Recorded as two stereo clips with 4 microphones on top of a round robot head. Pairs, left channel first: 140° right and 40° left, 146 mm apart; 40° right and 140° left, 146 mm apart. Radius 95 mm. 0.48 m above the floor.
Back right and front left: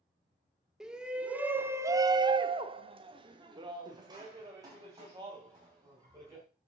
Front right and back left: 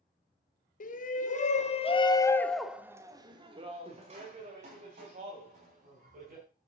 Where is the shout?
45° right, 2.0 m; by 6.5 s 110° left, 4.5 m.